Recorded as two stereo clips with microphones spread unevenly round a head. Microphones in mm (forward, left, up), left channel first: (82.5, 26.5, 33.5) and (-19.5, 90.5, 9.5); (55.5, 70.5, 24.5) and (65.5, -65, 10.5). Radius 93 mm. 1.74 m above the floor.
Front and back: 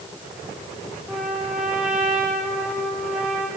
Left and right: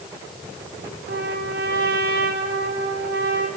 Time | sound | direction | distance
1.1 | a trumpet | 125° right | 4.5 m